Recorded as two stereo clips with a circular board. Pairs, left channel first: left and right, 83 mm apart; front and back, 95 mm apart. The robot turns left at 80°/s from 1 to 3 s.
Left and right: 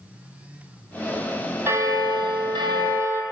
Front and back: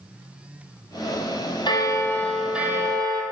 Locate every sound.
1.7 s a bell: 30° right, 0.9 m; by 3.2 s 135° right, 0.9 m